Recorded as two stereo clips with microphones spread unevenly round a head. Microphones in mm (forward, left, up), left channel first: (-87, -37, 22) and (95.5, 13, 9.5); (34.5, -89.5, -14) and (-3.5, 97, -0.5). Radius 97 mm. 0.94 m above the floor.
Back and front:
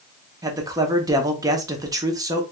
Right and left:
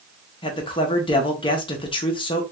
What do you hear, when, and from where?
0.4 s a man speaking: 40° right, 0.7 m